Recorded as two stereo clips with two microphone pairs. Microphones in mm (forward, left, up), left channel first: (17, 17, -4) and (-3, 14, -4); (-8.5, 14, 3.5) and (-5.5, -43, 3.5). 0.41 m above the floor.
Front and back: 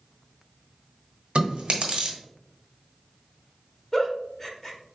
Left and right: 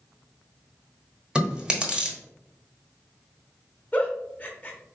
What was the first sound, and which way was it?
Chewing, 155° right.